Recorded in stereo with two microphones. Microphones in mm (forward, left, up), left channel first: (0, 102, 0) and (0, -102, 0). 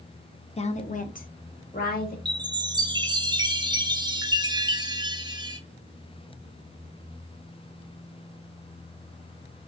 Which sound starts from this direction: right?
A chime, at 2.2 s.